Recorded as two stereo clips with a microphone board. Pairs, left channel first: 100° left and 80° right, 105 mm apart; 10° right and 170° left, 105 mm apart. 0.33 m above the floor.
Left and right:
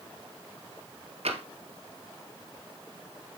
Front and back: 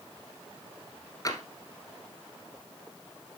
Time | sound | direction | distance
1.2 | tapping | 70° right | 1.6 m